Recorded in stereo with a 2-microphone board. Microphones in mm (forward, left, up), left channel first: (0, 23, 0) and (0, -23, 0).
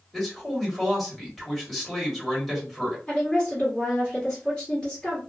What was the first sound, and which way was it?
A man speaking, 5° left (ahead or behind).